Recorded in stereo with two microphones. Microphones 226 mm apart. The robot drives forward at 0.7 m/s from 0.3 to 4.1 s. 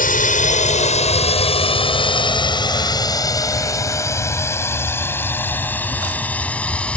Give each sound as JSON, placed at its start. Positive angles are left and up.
{"t": 0.0, "sound": "a drone", "side_deg": 35}